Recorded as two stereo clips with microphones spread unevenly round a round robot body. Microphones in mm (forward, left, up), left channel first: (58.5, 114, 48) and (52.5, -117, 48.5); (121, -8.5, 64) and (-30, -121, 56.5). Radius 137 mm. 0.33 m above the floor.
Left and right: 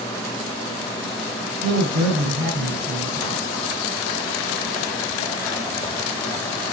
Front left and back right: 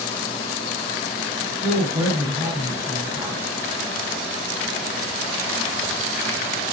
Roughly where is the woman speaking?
Right.